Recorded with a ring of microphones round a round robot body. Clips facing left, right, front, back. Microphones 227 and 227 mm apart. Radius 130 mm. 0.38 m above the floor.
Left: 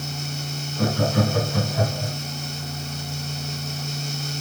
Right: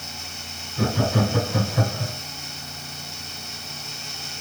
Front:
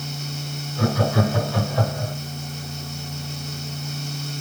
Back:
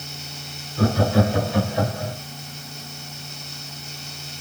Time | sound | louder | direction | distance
0.8 | laughter | even, back 2 dB | 120° right | 3.5 m